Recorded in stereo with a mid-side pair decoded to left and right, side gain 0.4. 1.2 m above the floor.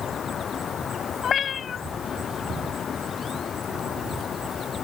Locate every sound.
1.2 s a cat meowing: 55° left